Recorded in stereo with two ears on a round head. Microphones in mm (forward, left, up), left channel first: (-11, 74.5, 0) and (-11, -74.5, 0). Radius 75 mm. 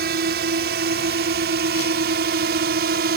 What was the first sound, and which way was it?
A drone, 65° right (ahead or behind).